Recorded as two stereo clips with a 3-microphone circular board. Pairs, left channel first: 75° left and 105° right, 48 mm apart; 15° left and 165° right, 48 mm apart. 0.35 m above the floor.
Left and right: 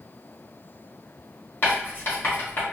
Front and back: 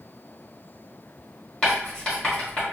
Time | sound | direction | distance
1.6 | writing | 85° left | 1.6 m